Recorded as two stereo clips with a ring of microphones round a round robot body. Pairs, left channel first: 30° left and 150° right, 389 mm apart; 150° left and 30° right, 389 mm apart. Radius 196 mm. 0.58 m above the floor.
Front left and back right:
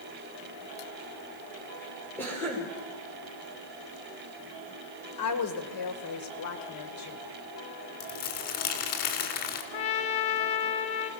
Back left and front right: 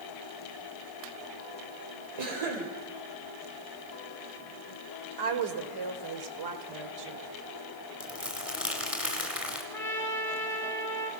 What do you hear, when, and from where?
2.2 s a cough: 55° right, 3 m
5.2 s a woman speaking: 5° right, 2 m
8.0 s crumpling: 55° left, 2.5 m
9.7 s a trumpet: 65° left, 1.7 m